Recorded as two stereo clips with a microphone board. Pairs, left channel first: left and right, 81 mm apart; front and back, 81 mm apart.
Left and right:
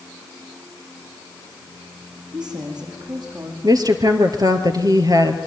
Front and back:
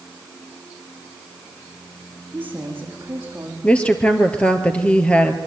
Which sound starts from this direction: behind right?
A woman speaking, at 2.3 s.